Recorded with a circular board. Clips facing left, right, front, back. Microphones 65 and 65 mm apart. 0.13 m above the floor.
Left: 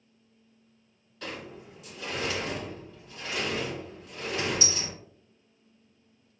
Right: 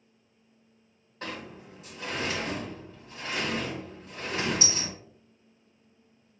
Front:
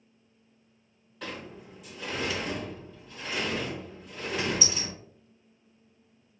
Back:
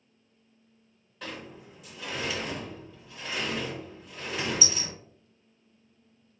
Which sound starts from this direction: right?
A sliding door, at 1.2 s.